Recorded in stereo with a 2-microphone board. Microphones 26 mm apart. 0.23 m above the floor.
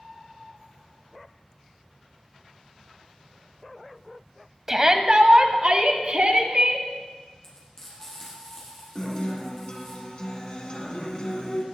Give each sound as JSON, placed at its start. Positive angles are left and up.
{"t": 4.7, "sound": "a shout", "side_deg": -20, "distance_m": 1.0}
{"t": 7.4, "sound": "frying", "side_deg": 20, "distance_m": 5.5}
{"t": 8.9, "sound": "a guitar", "side_deg": 40, "distance_m": 1.9}